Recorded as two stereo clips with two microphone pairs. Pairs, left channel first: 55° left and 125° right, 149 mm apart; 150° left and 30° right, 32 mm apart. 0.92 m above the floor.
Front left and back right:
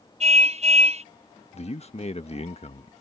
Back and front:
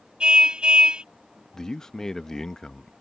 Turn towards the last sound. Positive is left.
turn(degrees=80)